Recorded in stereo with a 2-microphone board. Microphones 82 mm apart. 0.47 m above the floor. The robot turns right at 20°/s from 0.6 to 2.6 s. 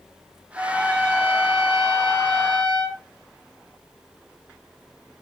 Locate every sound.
0.6 s a trumpet: 145° right, 4.5 m; by 3.0 s 105° right, 4.5 m